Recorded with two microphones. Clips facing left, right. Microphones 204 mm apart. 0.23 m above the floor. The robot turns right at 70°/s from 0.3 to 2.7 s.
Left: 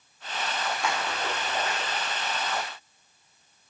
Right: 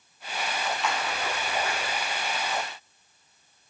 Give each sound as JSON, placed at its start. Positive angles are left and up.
{"t": 0.8, "sound": "a splash", "side_deg": 45, "distance_m": 5.0}